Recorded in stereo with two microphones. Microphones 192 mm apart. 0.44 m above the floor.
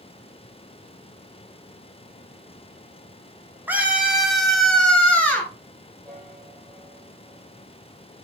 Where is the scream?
10° right (ahead or behind), 3 m; by 5.5 s 10° left (ahead or behind), 4.5 m.